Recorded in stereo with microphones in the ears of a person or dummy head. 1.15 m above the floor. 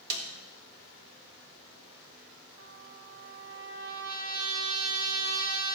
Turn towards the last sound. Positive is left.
turn(degrees=-70)  # may be behind; listen again after turning